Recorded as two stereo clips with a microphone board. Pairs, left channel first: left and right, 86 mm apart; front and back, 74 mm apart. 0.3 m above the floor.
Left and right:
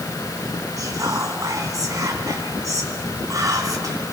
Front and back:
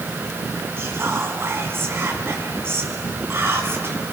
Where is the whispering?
130° right, 2.5 m.